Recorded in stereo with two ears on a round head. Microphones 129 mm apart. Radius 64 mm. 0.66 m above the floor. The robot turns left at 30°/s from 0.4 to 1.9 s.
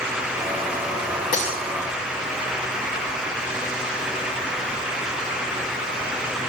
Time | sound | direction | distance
1.3 | breaking glass | 60° left (ahead or behind) | 8 m